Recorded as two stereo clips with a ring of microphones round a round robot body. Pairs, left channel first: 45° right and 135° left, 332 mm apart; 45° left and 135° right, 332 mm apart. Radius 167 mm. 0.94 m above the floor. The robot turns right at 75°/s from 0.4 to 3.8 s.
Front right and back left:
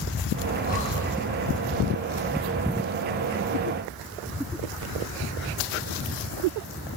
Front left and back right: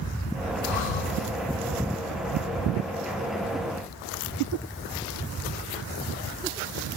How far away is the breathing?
About 0.8 m.